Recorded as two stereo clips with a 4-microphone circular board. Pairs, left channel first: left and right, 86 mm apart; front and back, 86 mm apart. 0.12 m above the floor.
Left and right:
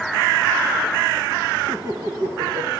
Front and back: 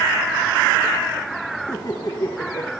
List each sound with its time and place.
1.7 s laughter: 40° right, 6.5 m